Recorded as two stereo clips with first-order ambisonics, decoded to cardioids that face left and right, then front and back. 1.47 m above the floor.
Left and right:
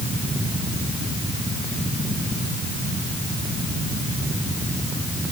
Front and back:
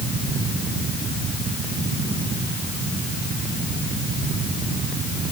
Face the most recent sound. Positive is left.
No sound to turn to.